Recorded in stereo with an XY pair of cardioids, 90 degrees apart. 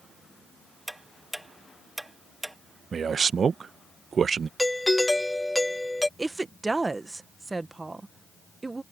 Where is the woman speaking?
20° right.